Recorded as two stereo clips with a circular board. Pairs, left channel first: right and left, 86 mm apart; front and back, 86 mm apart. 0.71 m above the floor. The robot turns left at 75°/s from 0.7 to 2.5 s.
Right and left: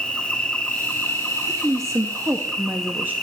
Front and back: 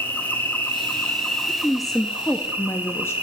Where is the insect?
30° right, 1.3 m; by 3.2 s 165° right, 1.3 m.